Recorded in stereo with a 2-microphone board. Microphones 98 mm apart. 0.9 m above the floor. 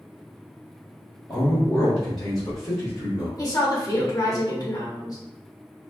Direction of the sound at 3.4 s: 40° left (ahead or behind).